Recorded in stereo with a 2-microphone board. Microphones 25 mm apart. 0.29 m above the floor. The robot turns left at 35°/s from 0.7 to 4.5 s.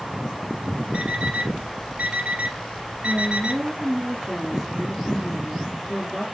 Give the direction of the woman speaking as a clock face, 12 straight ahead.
4 o'clock.